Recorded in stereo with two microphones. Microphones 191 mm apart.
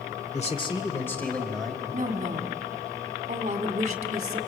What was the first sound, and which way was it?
A man speaking, 40° left (ahead or behind).